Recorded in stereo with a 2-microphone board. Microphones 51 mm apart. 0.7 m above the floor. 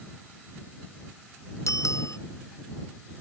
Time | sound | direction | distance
1.7 | a bicycle bell | 85° left | ?